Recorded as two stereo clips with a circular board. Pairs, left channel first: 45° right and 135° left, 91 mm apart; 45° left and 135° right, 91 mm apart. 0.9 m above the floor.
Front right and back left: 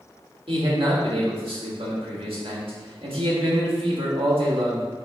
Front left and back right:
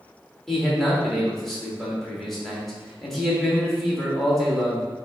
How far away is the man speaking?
About 1.4 m.